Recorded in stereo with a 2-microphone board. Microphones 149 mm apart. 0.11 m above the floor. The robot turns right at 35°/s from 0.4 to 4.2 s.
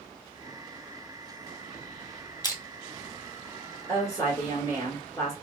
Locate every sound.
2.4 s crushing: 25° left (ahead or behind), 0.7 m; by 2.6 s 20° left (ahead or behind), 0.7 m
3.9 s a woman speaking: 15° left (ahead or behind), 1.6 m; by 5.3 s 25° left (ahead or behind), 1.6 m